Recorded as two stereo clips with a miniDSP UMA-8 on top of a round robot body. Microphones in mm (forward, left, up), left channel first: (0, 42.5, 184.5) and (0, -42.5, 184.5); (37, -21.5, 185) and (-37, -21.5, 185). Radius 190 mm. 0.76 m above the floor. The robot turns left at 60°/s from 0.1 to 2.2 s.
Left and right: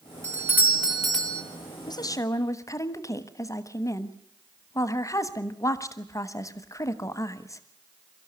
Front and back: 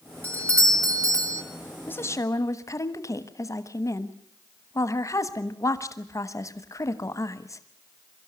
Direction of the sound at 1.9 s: 60° left.